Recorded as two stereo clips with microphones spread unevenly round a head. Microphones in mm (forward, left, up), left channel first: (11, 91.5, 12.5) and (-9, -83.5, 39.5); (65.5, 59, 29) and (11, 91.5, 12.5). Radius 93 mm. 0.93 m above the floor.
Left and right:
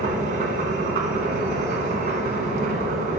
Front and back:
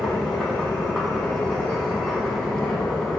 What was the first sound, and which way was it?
A machine running, 135° right.